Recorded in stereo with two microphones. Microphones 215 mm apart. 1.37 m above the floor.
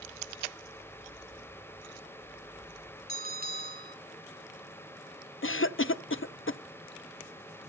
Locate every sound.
3.1 s a bell: 45° right (ahead or behind), 3 m
5.4 s a cough: 70° left (ahead or behind), 0.6 m